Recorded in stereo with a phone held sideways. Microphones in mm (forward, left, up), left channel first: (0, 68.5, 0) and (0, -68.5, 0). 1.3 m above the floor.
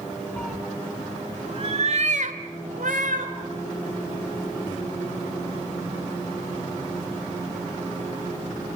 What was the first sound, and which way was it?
A cat meowing, 5° left (ahead or behind).